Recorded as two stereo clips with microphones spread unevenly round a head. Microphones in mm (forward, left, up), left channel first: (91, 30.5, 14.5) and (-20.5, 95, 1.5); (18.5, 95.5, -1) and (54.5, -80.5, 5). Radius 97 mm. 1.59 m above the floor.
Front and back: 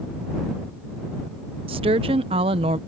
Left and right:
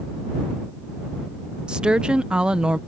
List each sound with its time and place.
1.7 s a woman speaking: 160° right